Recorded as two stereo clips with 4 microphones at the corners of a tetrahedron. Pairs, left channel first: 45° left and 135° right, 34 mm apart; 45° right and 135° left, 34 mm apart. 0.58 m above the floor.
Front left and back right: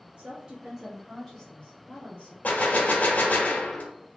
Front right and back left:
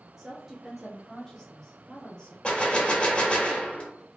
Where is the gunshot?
10° left, 0.8 m.